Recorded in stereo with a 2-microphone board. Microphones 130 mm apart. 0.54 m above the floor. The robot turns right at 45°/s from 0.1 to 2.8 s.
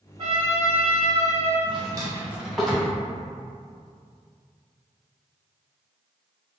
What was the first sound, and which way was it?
A trumpet, 105° right.